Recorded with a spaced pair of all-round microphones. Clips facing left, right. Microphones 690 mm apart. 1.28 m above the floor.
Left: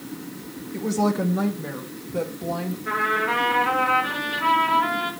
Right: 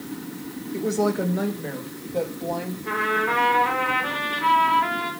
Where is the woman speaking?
25° left (ahead or behind), 1.3 m; by 2.8 s 45° left (ahead or behind), 2.5 m.